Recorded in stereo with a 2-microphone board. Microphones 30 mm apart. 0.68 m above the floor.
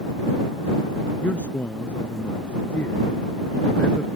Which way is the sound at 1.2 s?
70° left (ahead or behind).